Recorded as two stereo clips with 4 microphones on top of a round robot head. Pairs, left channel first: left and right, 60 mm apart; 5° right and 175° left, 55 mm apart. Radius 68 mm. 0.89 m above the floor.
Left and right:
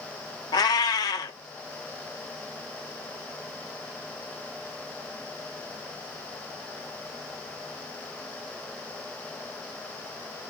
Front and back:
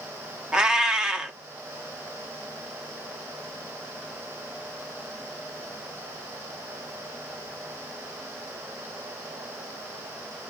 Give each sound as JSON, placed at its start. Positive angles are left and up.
{"t": 0.5, "sound": "a cat meowing", "azimuth_deg": 100, "distance_m": 0.7}